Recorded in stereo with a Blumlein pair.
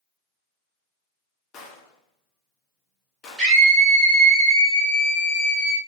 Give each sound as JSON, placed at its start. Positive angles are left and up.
{"t": 1.5, "sound": "a gunshot", "azimuth_deg": 30, "distance_m": 0.5}
{"t": 3.4, "sound": "a scream", "azimuth_deg": -15, "distance_m": 1.4}